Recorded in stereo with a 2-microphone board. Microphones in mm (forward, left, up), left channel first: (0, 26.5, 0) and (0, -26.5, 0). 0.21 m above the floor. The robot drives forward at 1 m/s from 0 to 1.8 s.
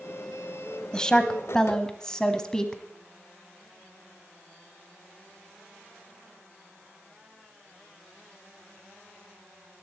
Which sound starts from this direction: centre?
A woman speaking, at 0.9 s.